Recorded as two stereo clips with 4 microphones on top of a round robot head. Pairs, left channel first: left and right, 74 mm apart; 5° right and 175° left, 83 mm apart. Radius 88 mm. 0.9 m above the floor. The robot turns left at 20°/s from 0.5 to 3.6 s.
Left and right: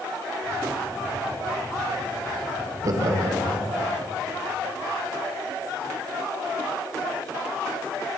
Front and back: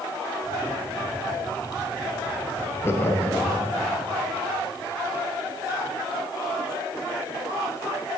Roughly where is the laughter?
Ahead right.